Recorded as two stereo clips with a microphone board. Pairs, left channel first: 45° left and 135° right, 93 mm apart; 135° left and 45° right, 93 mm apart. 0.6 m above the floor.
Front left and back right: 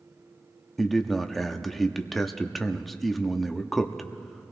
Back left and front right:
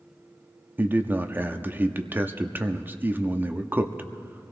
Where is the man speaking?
35° right, 0.6 m.